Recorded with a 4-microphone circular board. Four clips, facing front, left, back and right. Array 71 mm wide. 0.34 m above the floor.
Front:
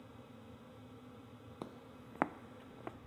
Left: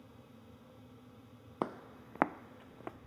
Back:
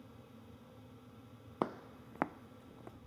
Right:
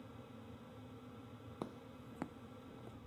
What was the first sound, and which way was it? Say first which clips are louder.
Footsteps: left 10 dB, back 12 dB; 130° left.